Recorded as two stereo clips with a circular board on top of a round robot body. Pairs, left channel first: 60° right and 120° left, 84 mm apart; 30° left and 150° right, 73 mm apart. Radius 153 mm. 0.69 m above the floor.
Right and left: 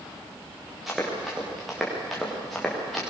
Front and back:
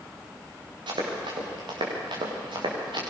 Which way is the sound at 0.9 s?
150° right.